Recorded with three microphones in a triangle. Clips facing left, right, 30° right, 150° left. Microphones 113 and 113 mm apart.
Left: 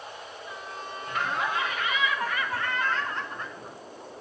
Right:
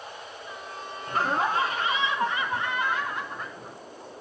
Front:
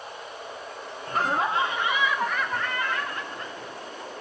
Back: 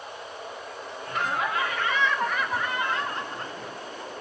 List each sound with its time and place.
1.1 s laughter: 55° right, 2.5 m; by 3.8 s straight behind, 2.5 m